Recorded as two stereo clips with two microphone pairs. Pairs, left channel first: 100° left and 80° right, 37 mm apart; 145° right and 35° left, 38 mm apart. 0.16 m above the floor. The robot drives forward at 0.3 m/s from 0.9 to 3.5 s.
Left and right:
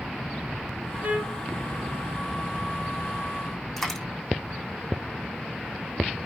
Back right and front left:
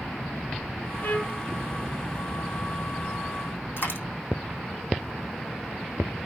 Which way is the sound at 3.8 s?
175° right.